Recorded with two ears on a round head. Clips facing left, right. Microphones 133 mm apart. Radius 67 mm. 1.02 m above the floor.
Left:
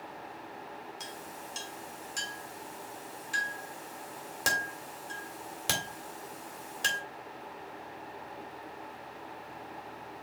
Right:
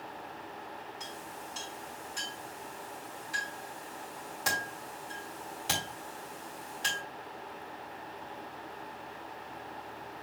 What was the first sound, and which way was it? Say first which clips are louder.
A clink: even; 65° left (ahead or behind).